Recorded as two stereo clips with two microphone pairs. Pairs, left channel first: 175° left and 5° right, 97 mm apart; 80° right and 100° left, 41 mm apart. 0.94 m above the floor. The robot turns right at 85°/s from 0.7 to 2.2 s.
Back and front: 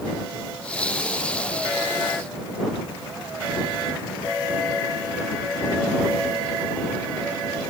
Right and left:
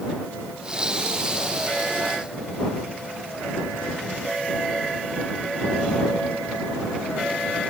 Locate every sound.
Only background noise.